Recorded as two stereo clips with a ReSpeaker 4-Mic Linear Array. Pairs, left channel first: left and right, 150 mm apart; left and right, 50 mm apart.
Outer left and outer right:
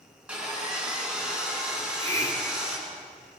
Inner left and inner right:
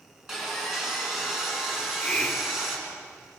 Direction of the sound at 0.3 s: 5° right (ahead or behind).